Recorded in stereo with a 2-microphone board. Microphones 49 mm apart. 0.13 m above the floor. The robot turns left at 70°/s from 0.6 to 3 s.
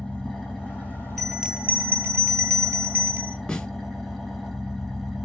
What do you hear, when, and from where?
0.0 s an engine running: 160° left, 2.5 m; by 5.3 s 5° right, 2.5 m
1.2 s a bell: 5° left, 1.0 m; by 3.4 s 125° right, 1.0 m
3.5 s a snare drum: 10° left (ahead or behind), 1.7 m